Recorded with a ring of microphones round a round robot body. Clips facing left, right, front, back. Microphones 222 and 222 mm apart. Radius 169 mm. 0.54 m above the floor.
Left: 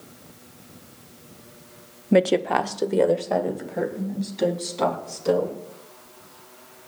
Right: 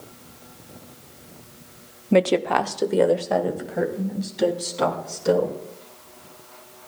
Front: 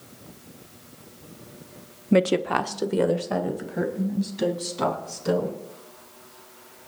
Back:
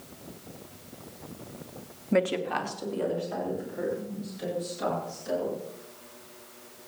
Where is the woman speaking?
15° left, 0.8 m; by 5.5 s 5° right, 6 m.